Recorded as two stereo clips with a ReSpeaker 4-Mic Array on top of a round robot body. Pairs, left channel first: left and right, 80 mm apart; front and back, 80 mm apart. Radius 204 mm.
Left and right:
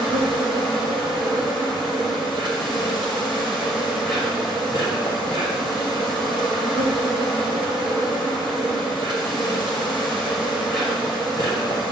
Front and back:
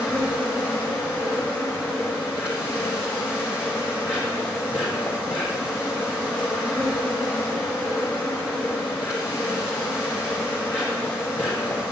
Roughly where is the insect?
Left.